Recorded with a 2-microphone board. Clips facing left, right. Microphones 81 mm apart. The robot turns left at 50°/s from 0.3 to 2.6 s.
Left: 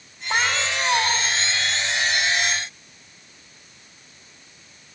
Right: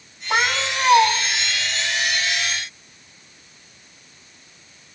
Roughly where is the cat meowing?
Ahead.